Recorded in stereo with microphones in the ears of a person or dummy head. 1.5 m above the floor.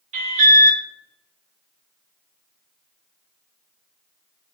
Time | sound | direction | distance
0.1 | an alarm | 40° right (ahead or behind) | 0.6 m